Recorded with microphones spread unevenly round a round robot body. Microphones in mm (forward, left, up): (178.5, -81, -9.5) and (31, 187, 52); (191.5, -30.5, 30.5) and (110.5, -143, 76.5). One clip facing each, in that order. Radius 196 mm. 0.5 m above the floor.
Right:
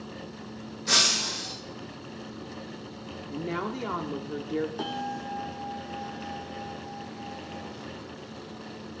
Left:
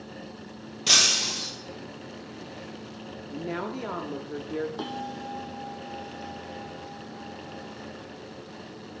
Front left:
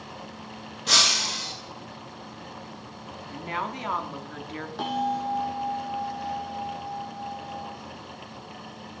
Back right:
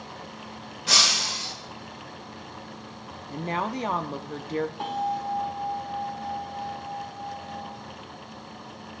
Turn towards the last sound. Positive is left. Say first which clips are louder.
# even, front left 1 dB
turn(degrees=45)